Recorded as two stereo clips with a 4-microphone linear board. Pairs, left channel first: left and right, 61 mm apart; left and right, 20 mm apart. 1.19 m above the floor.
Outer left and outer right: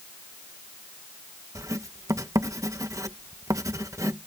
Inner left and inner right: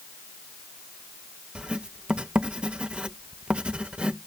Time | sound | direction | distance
1.6 | writing | 65° right (ahead or behind) | ?